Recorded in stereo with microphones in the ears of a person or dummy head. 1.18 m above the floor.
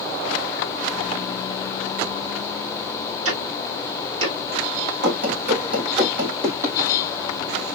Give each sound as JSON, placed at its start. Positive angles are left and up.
{"t": 3.2, "sound": "ticking", "side_deg": -75, "distance_m": 2.5}
{"t": 5.0, "sound": "running footsteps", "side_deg": -55, "distance_m": 1.9}